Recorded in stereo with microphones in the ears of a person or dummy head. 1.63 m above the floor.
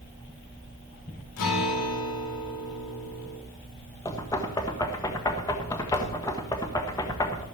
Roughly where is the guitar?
Left.